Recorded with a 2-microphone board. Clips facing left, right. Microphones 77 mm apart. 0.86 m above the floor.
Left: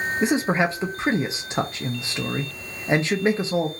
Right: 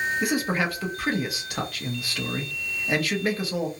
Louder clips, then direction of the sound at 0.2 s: Left 8 dB; 25° left (ahead or behind).